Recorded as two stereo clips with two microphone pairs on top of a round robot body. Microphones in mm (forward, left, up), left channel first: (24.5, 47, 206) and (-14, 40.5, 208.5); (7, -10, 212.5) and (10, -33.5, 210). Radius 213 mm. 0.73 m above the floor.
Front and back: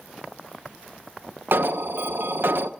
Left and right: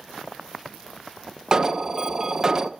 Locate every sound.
1.5 s an alarm: 140° right, 0.8 m